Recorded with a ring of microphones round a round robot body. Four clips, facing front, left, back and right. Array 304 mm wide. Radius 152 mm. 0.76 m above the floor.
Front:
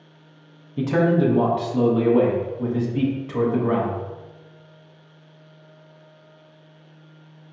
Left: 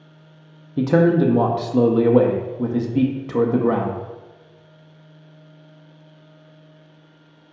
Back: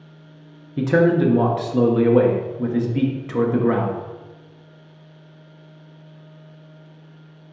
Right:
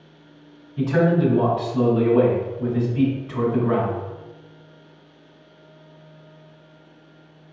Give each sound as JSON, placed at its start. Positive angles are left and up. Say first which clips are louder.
{"t": 0.8, "sound": "a man speaking", "louder": "left 3 dB, back 3 dB", "azimuth_deg": 110, "distance_m": 0.7}